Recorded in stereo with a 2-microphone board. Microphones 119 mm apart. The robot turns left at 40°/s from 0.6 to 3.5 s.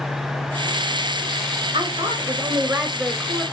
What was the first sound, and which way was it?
A woman speaking, 130° right.